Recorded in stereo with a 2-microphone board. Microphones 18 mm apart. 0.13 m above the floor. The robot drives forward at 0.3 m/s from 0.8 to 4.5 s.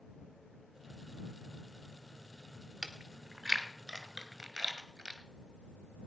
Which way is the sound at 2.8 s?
20° right (ahead or behind).